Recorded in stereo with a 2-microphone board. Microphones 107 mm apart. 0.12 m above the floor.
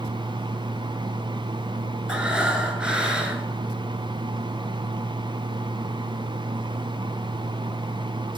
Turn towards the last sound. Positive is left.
turn(degrees=-10)  # may be behind; listen again after turning